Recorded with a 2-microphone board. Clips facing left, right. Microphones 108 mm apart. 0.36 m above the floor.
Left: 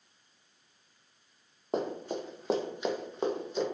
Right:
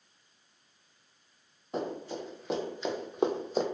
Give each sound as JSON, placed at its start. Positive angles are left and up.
{"t": 1.7, "sound": "running footsteps", "side_deg": 60, "distance_m": 1.1}